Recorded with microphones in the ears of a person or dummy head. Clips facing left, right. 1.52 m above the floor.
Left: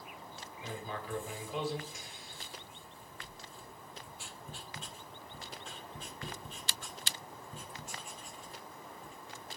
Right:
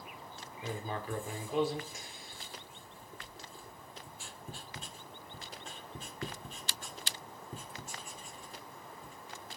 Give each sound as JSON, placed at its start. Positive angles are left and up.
{"t": 0.6, "sound": "writing", "side_deg": -40, "distance_m": 1.6}